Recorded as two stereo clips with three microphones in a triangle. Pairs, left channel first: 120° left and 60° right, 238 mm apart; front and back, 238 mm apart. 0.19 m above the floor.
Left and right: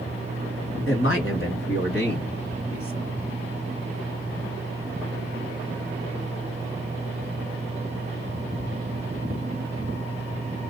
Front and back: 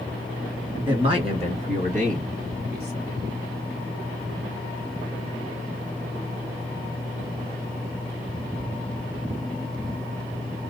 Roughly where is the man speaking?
Behind left.